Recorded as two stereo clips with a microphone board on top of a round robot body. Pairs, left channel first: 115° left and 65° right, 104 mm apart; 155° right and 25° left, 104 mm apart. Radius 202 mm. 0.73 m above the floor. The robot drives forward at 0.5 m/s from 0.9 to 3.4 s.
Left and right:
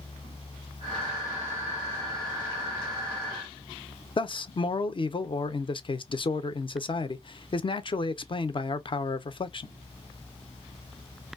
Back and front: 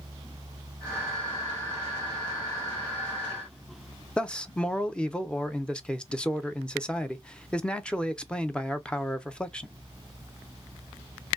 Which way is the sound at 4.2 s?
125° left.